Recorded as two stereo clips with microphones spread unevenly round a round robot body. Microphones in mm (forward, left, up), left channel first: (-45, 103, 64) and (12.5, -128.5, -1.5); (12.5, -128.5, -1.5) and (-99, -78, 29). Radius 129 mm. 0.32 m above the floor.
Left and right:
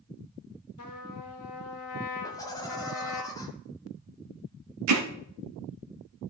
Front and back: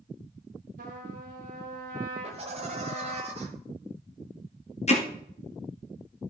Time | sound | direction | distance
0.8 | a trumpet | 135° left | 2 m
2.2 | laughter | 170° right | 1.4 m
4.9 | hammering | 55° right | 2.5 m